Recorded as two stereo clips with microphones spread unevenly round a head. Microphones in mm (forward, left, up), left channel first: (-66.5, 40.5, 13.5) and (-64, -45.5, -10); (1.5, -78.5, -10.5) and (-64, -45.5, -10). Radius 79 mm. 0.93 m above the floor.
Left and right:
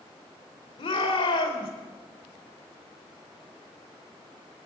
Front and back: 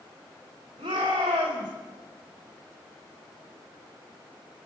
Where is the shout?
110° left, 4.5 m.